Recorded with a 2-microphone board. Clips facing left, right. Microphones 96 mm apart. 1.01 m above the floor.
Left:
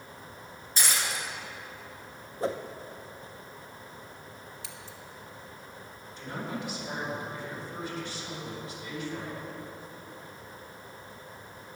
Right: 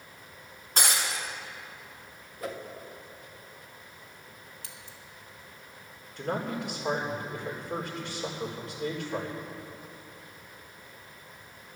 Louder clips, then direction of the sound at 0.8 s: Right 2 dB; 65° right (ahead or behind).